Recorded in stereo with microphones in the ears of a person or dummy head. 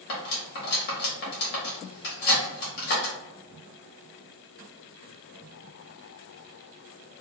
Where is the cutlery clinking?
50° left (ahead or behind), 1.4 m.